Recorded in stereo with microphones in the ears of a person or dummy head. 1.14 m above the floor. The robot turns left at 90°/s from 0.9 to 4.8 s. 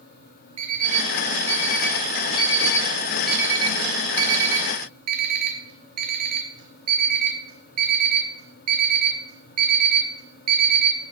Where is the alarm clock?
35° right (ahead or behind), 1.0 m; by 11.0 s 45° right (ahead or behind), 1.0 m.